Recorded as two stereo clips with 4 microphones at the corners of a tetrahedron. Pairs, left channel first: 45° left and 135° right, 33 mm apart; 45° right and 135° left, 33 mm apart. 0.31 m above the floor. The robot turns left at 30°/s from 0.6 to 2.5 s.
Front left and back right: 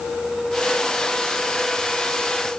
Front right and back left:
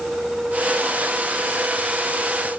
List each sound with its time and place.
Only background noise.